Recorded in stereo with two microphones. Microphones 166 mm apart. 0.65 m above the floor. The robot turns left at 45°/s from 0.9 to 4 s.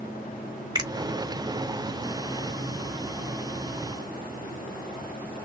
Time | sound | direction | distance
0.8 | a finger snap | 25° right (ahead or behind) | 1.2 m